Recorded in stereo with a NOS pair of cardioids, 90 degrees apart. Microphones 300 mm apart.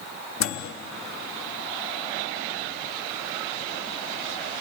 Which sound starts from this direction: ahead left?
A microwave, at 0.4 s.